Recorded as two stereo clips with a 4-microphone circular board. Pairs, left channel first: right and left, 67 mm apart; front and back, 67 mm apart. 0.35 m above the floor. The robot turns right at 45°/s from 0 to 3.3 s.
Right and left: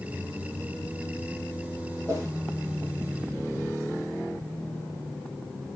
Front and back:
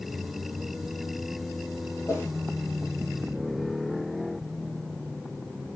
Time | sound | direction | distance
2.1 | a whoosh | 50° left | 2.5 m